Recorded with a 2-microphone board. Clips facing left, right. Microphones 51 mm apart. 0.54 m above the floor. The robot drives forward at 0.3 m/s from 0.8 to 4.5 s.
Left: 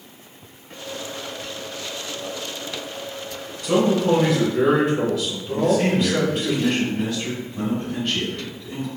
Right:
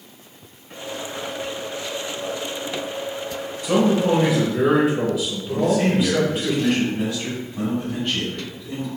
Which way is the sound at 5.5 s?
5° right (ahead or behind).